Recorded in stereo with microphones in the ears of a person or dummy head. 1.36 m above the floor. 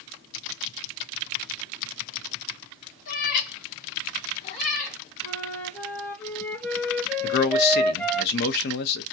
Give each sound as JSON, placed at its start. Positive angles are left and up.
{"t": 3.1, "sound": "a cat meowing", "side_deg": 45, "distance_m": 1.8}
{"t": 5.2, "sound": "a flute", "side_deg": 5, "distance_m": 1.2}
{"t": 7.2, "sound": "a man speaking", "side_deg": 55, "distance_m": 0.8}